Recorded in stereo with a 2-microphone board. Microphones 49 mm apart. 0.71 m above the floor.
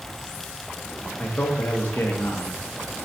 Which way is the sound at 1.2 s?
40° left (ahead or behind).